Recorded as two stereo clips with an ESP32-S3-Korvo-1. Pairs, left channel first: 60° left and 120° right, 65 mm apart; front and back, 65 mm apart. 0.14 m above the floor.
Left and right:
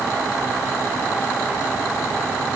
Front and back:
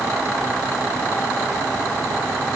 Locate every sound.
Only background noise.